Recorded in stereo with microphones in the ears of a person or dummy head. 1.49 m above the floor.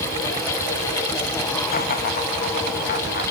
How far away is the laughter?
About 2.5 m.